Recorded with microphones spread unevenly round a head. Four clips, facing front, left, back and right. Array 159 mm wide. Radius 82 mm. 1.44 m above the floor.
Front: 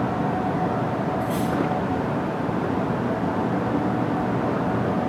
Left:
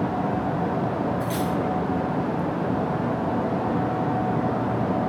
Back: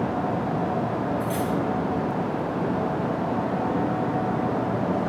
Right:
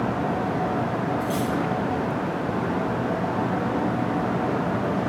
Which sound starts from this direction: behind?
Cutlery clinking, at 1.2 s.